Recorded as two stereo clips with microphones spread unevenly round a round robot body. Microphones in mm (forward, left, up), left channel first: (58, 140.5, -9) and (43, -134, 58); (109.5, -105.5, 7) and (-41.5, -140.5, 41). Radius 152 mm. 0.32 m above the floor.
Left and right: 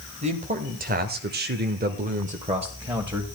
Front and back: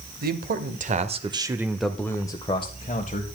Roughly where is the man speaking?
Behind.